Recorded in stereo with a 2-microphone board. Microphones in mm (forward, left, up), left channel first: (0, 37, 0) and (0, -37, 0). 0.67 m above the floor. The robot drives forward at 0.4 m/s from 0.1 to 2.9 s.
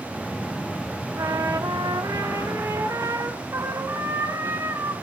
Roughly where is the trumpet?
Right.